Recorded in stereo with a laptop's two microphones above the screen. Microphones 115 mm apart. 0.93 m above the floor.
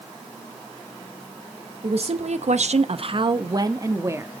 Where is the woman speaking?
55° right (ahead or behind), 0.8 m; by 4.3 s 20° right (ahead or behind), 1.3 m.